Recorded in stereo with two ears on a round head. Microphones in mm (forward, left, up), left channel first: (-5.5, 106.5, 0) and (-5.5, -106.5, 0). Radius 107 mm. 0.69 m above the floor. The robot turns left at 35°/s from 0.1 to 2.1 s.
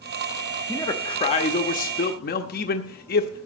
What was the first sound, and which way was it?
A man speaking, 165° left.